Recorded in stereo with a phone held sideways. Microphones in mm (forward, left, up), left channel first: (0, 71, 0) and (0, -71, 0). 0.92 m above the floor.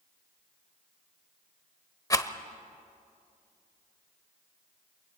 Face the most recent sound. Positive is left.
turn(degrees=25)  # may be behind; listen again after turning